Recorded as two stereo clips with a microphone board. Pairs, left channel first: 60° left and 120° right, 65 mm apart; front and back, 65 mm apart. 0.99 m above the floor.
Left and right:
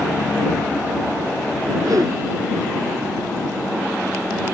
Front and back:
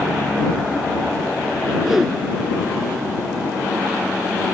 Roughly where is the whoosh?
Right.